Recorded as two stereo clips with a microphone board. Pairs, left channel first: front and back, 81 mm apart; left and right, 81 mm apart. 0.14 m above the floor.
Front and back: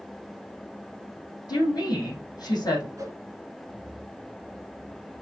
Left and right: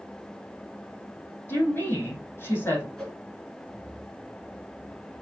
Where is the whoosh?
170° left, 2 m.